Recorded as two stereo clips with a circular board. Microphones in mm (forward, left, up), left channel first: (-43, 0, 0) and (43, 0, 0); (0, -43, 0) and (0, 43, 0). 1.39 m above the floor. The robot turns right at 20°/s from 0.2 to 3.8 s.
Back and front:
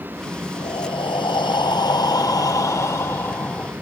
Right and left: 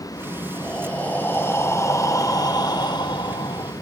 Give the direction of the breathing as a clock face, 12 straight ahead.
6 o'clock.